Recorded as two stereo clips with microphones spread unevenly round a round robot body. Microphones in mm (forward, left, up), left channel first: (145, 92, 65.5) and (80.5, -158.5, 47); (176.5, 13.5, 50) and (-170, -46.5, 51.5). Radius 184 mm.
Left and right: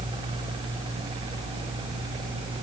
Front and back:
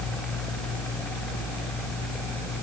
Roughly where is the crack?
I don't hear a crack.